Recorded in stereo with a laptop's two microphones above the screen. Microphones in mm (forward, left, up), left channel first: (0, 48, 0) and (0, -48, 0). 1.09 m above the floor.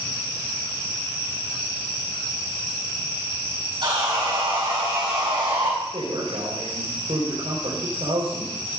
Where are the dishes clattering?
I don't hear dishes clattering.